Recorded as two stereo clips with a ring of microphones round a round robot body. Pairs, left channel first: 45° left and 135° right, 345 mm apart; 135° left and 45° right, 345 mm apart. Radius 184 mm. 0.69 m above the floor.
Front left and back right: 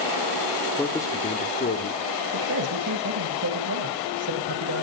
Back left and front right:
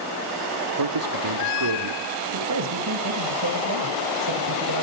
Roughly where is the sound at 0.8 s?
Ahead right.